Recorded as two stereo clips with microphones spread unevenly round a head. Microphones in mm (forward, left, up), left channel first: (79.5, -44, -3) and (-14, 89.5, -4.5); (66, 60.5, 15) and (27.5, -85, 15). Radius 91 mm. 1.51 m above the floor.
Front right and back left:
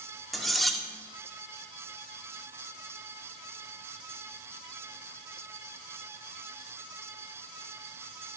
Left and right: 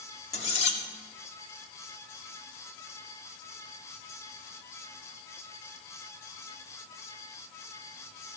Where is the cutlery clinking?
35° left, 1.9 m.